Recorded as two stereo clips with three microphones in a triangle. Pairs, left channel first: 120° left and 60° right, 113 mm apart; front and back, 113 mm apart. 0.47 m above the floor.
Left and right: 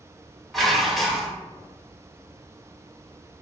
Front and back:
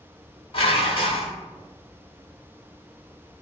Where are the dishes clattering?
30° left, 1.1 m.